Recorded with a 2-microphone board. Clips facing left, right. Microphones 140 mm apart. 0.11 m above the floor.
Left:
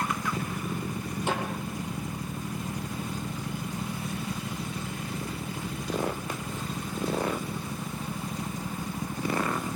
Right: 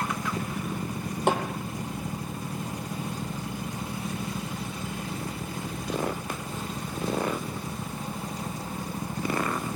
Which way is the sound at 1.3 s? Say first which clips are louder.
Right 5 dB; 55° right (ahead or behind).